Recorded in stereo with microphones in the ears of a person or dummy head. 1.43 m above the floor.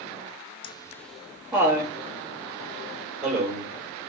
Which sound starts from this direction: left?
Laughter, at 0.6 s.